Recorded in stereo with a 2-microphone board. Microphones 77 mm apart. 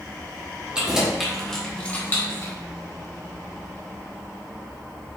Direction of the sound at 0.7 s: 10° right (ahead or behind).